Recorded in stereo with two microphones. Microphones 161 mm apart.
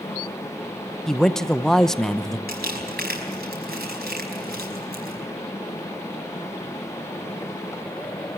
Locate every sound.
1.1 s a man speaking: centre (ahead or behind), 0.7 m
2.5 s crumpling: 90° right, 5 m